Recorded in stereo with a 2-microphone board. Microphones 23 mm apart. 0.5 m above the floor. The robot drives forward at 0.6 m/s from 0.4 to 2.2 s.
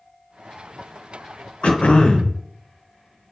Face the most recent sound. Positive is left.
turn(degrees=75)  # may be behind; listen again after turning